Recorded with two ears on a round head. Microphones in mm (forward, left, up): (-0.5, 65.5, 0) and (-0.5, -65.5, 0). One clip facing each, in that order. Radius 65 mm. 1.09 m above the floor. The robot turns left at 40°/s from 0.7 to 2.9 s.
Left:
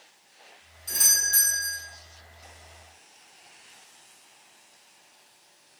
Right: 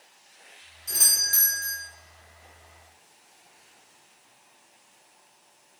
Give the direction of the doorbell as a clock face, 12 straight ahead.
12 o'clock.